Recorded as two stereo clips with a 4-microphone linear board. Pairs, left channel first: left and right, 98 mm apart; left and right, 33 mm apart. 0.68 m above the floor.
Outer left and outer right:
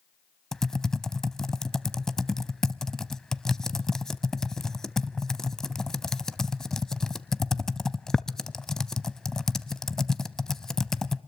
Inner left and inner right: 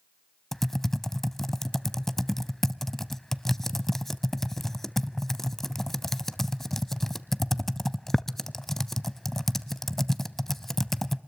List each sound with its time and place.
0.5 s typing on a keyboard: 5° left (ahead or behind), 0.6 m